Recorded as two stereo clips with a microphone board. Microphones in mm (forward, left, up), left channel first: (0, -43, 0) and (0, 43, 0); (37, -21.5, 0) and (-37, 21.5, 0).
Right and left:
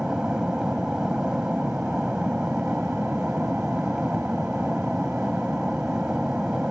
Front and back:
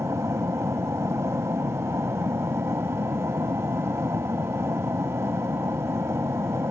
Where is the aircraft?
165° left.